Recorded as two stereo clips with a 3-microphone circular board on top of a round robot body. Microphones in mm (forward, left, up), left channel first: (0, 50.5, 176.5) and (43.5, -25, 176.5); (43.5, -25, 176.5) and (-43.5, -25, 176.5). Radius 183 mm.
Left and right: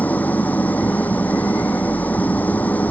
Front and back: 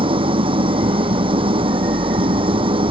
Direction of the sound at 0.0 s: 170° right.